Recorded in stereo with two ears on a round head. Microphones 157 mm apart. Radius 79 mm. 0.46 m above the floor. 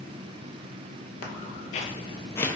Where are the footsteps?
45° left (ahead or behind), 0.7 m; by 2.6 s 5° left (ahead or behind), 0.5 m.